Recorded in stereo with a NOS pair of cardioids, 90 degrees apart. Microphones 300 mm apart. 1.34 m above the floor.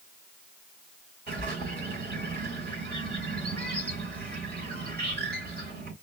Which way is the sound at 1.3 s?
35° right.